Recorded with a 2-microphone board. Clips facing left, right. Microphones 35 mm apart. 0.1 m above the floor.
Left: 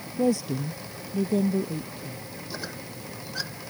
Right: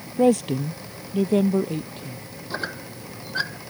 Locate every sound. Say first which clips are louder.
0.2 s a woman speaking: right 6 dB; 55° right (ahead or behind); by 2.2 s 50° right (ahead or behind)
2.5 s a squeak: right 8 dB; 40° right (ahead or behind)